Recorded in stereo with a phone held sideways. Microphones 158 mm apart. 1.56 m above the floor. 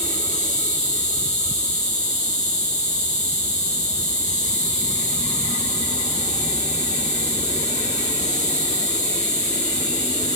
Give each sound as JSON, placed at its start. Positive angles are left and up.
{"t": 0.0, "sound": "an insect", "side_deg": 50, "distance_m": 2.0}